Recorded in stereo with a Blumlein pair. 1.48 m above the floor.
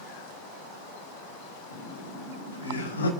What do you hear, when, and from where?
1.7 s laughter: 70° left, 4 m